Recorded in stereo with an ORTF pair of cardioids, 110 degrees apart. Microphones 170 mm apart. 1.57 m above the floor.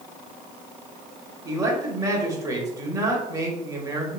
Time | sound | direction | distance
1.4 | a man speaking | 20° right | 0.9 m